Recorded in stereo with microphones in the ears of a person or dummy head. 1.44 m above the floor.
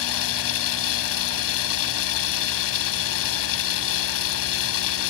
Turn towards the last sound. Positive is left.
turn(degrees=75)  # may be behind; listen again after turning